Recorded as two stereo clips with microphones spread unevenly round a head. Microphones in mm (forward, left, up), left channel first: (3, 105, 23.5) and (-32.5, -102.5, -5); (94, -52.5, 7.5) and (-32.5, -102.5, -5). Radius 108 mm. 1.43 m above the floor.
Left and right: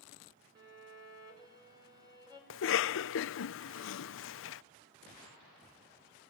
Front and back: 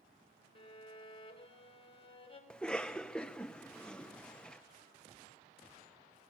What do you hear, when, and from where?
0.6 s a violin: 25° right, 5.5 m
2.5 s a cough: 105° left, 0.6 m